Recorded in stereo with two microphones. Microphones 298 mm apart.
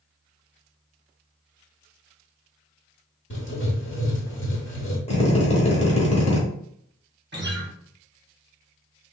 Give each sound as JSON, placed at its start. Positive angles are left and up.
{"t": 3.3, "sound": "writing", "side_deg": 40, "distance_m": 1.0}
{"t": 5.1, "sound": "a drill", "side_deg": 20, "distance_m": 1.1}
{"t": 7.3, "sound": "a guitar", "side_deg": -35, "distance_m": 0.7}